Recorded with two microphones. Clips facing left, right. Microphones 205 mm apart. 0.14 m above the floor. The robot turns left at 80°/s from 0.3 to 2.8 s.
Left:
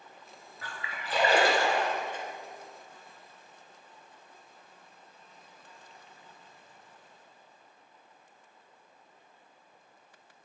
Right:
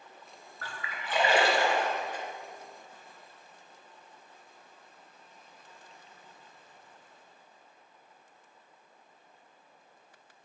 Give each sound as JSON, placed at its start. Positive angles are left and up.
{"t": 0.6, "sound": "a splash", "side_deg": 15, "distance_m": 1.7}